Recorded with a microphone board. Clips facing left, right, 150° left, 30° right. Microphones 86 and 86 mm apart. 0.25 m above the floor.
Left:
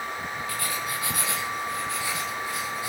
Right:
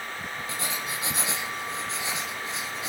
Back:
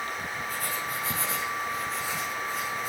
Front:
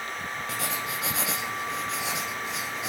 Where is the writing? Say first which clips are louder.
Left 1 dB, front 2 dB; 20° right, 5 m.